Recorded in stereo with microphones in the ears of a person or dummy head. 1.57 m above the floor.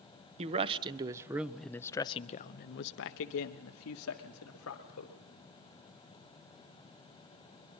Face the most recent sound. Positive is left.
turn(degrees=85)